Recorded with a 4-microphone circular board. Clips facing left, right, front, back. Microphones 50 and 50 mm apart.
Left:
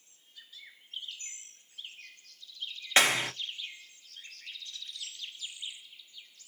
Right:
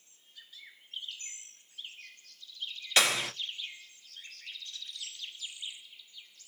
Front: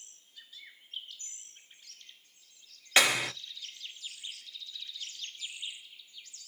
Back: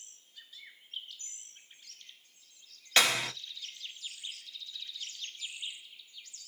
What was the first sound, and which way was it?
A clap, 65° left.